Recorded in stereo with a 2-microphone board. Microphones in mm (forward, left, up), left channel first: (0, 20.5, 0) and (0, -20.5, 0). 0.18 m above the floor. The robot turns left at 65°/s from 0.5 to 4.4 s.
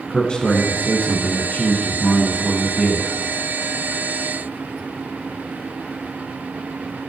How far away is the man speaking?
About 1.6 m.